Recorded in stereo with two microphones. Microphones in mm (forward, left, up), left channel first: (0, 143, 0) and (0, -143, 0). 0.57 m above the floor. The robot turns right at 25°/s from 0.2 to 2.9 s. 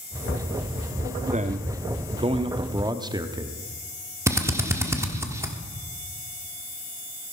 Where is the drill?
10° right (ahead or behind), 1.2 m.